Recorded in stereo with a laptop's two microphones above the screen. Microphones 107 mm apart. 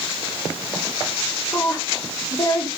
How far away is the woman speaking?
About 3 m.